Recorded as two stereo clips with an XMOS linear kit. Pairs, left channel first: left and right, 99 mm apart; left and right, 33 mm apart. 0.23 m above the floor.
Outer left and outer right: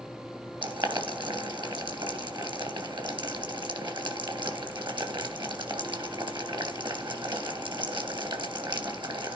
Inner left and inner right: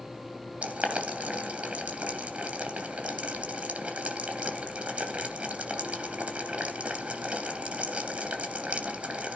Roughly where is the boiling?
Right.